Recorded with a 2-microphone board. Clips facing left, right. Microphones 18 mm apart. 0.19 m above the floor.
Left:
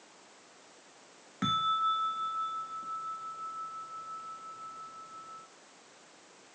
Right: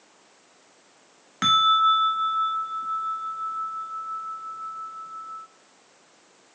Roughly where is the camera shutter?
No camera shutter in this recording.